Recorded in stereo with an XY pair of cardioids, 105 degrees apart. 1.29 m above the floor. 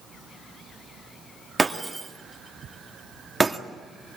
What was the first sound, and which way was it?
Breaking glass, 10° right.